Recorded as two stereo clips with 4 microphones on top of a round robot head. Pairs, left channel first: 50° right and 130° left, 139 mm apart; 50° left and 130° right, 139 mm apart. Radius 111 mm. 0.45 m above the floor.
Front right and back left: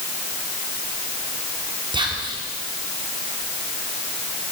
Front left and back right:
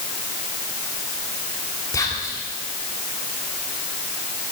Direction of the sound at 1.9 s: 100° left.